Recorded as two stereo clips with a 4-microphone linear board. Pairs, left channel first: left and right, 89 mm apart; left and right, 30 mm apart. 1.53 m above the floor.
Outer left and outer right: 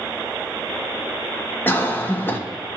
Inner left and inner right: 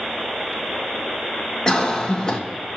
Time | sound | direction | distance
1.7 | a cough | 20° left (ahead or behind) | 1.1 m